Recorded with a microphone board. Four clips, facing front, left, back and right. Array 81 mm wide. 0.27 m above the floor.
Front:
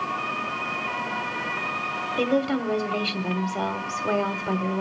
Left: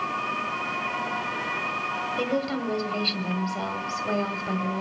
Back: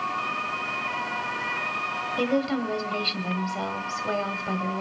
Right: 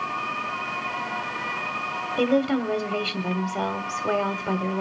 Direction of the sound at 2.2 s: 65° right.